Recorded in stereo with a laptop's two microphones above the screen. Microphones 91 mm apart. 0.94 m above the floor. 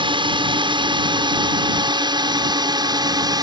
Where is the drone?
60° right (ahead or behind); by 3.4 s 45° right (ahead or behind).